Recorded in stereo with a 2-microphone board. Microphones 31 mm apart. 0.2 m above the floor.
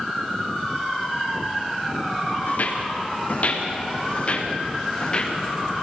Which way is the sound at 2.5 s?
60° left (ahead or behind).